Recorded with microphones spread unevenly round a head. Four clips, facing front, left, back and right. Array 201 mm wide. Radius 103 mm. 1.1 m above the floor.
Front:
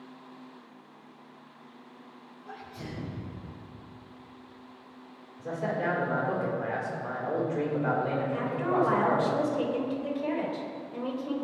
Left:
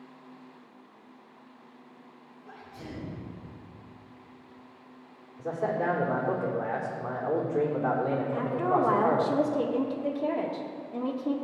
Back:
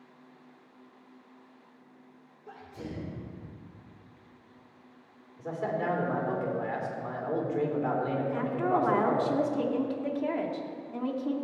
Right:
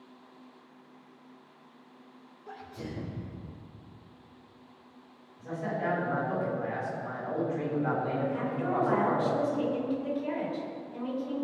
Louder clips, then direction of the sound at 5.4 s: Left 4 dB, front 1 dB; 110° left.